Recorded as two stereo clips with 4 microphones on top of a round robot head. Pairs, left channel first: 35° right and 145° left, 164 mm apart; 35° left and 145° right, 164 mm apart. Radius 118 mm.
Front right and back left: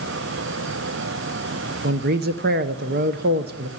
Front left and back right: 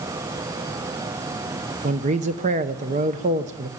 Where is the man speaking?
170° left, 0.8 m.